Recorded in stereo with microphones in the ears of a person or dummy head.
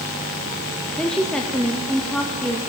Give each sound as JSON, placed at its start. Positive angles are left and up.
{"t": 1.0, "sound": "a woman speaking", "side_deg": 0, "distance_m": 0.5}